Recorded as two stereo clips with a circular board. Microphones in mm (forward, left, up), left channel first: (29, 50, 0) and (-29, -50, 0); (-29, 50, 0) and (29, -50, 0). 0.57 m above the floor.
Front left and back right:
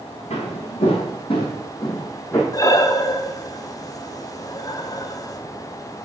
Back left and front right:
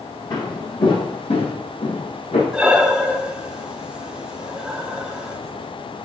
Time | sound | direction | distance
0.3 | footsteps | 70° left | 1.4 m
2.5 | breathing | 20° left | 0.6 m